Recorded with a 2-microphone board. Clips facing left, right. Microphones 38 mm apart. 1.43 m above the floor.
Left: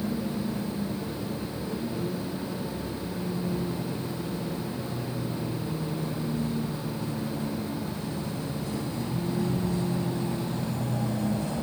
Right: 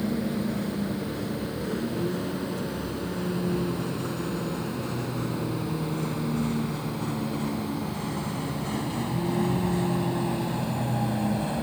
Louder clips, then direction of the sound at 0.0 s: Right 2 dB; 80° right.